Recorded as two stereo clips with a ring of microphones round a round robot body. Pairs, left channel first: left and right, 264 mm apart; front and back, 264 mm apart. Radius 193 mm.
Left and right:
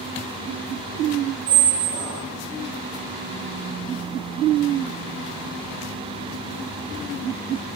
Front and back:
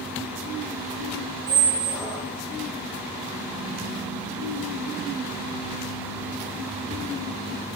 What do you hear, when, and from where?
1.5 s a squeak: 70° right, 0.6 m